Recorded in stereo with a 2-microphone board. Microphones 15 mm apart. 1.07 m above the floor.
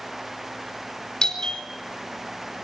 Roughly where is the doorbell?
Left.